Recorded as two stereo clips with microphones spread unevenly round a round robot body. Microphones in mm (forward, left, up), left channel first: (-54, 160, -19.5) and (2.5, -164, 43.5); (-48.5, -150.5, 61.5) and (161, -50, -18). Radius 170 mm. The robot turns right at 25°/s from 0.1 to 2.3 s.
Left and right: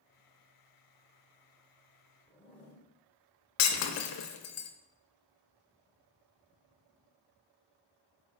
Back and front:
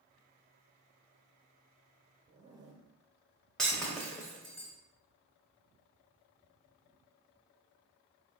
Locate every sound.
2.3 s a zipper: 35° left, 0.9 m
3.6 s breaking glass: 100° left, 0.5 m